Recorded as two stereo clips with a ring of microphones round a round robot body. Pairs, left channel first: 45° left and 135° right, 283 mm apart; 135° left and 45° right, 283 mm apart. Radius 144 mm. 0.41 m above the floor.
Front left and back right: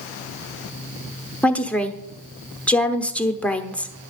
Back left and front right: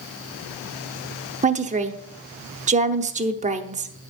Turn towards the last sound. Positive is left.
turn(degrees=-35)